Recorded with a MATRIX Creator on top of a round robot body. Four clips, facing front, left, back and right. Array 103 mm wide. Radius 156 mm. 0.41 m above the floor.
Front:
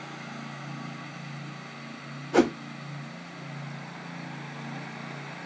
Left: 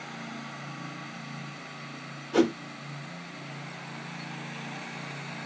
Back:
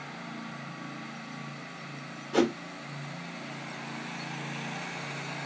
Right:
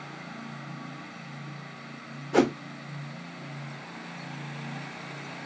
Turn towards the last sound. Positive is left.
turn(degrees=-45)